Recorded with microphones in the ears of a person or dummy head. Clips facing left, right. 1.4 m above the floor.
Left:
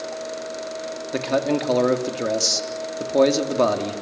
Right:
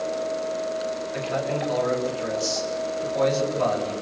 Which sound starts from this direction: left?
A man speaking, at 1.1 s.